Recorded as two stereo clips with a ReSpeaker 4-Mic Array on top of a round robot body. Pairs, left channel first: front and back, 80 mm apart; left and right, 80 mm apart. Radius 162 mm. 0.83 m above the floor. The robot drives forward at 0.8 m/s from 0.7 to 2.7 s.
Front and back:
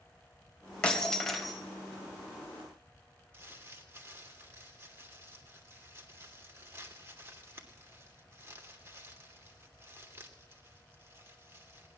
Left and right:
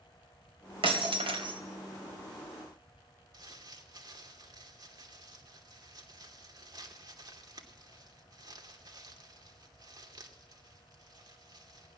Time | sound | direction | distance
0.8 | breaking glass | 75° right | 2 m
3.3 | crumpling | 120° right | 2.5 m